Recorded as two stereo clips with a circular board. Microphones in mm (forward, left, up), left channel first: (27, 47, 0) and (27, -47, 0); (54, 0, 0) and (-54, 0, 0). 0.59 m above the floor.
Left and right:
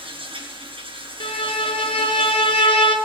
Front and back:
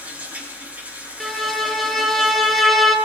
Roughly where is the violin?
Left.